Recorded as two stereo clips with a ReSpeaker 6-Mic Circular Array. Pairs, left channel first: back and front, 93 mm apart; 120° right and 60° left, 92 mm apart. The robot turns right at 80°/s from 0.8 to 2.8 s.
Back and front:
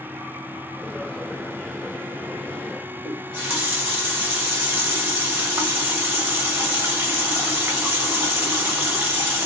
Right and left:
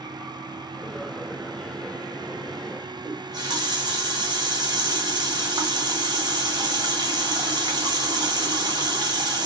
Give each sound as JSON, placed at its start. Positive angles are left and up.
{"t": 3.0, "sound": "a running tap", "azimuth_deg": 60, "distance_m": 1.2}